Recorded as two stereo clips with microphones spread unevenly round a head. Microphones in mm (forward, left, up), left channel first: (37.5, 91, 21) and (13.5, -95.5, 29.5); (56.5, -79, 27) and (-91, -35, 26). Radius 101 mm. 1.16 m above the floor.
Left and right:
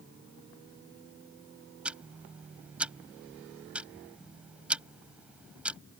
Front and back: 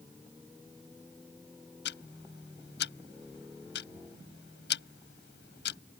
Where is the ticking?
15° right.